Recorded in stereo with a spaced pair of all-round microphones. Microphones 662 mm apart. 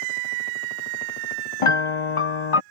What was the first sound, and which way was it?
A piano, 50° left (ahead or behind).